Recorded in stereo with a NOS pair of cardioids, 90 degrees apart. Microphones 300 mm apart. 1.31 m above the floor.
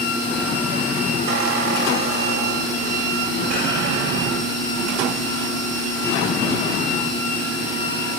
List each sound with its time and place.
1.3 s a squeak: 60° right, 3 m